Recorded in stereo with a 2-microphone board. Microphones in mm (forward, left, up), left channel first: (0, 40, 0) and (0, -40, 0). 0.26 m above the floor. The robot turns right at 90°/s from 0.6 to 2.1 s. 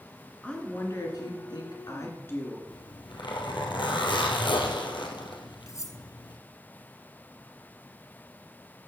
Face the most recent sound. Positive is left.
turn(degrees=45)  # may be behind; listen again after turning